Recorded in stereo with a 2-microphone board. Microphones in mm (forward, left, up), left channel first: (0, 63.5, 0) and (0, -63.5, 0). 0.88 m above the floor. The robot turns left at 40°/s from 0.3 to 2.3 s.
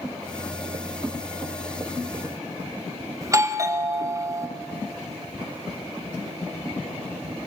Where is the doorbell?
25° right (ahead or behind), 1.0 m.